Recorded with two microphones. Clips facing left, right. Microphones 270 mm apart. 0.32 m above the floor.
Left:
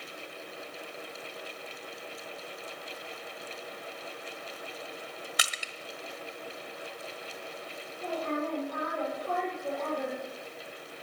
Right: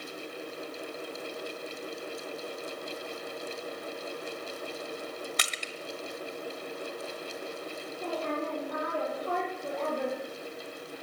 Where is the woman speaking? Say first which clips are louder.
Left 1 dB; 65° right (ahead or behind), 8.5 m.